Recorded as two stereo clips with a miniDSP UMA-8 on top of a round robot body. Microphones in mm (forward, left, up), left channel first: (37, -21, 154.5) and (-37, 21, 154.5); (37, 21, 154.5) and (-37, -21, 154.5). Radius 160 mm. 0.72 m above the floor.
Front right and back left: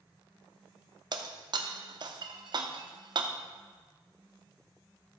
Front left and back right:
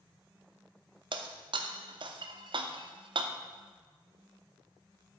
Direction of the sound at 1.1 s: 175° right.